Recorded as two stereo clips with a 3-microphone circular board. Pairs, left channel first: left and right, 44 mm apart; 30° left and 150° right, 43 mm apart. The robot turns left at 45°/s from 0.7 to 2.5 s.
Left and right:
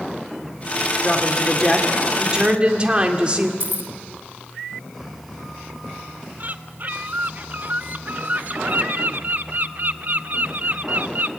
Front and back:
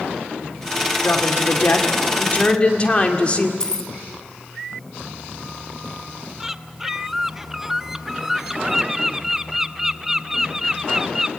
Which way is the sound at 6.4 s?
75° right.